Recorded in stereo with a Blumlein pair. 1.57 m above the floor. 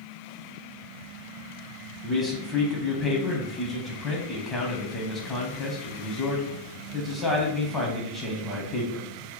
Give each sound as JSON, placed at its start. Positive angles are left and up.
{"t": 2.0, "sound": "a man speaking", "azimuth_deg": 20, "distance_m": 0.8}